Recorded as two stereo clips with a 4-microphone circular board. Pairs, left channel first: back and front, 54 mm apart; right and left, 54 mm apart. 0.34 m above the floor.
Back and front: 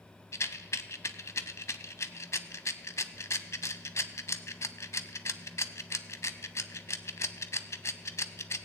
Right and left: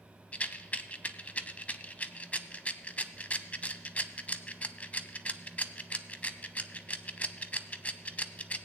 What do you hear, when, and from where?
0.3 s a rattle: 155° right, 0.5 m